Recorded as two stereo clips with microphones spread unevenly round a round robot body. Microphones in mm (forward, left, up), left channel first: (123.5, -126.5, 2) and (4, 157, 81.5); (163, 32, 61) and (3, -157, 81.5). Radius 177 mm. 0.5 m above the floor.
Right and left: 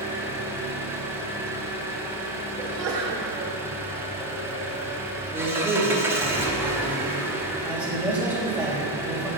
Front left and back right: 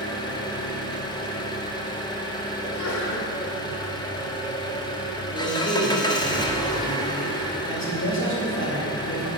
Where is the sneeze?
65° left, 1.8 m.